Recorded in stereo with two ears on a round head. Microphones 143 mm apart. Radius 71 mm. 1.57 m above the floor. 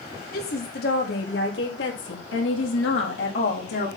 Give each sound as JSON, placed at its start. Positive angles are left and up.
{"t": 0.3, "sound": "a woman speaking", "side_deg": 65, "distance_m": 3.5}